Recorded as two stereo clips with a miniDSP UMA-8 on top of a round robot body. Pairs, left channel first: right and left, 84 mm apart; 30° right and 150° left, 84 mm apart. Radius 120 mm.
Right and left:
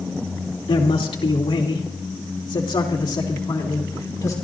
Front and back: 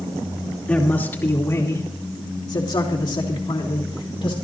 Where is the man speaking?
105° right, 2.5 m; by 4.3 s 40° right, 4 m.